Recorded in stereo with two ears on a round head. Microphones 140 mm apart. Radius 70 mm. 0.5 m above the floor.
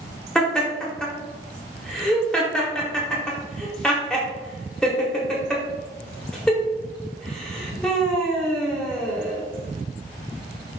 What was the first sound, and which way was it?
Laughter, 5° left (ahead or behind).